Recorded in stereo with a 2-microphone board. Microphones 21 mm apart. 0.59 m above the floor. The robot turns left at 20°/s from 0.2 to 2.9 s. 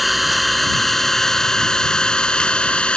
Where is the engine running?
175° right; by 3.0 s 130° left.